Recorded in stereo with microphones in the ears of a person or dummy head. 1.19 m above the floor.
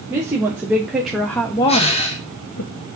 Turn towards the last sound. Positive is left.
turn(degrees=35)  # may be behind; listen again after turning